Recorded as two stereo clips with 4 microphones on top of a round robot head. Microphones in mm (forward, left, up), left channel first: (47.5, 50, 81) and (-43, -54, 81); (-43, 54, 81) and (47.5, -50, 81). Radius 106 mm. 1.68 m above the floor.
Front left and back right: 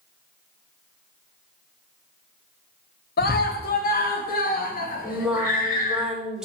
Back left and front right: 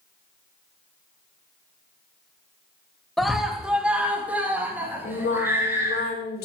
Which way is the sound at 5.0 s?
145° left.